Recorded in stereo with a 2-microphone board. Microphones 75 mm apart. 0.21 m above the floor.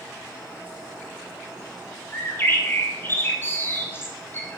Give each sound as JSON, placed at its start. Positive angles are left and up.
{"t": 2.1, "sound": "a bird", "side_deg": 30, "distance_m": 1.3}